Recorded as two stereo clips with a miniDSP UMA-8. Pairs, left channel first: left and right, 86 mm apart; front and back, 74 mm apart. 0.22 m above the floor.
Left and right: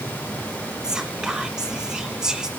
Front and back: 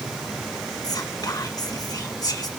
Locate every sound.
0.8 s whispering: 10° right, 2.5 m